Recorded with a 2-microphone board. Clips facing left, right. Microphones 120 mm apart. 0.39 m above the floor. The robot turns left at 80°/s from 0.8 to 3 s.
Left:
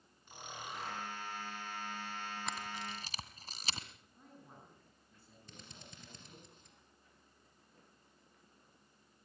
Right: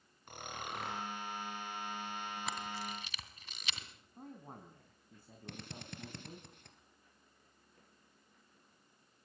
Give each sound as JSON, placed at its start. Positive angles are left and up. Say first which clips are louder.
{"t": 0.3, "sound": "snoring", "louder": "right 3 dB", "side_deg": -60, "distance_m": 6.5}
{"t": 2.5, "sound": "a camera shutter", "louder": "right 1 dB", "side_deg": -5, "distance_m": 2.0}
{"t": 4.2, "sound": "a man speaking", "louder": "right 8 dB", "side_deg": -50, "distance_m": 4.0}
{"t": 5.5, "sound": "a drill", "louder": "right 9 dB", "side_deg": -65, "distance_m": 3.0}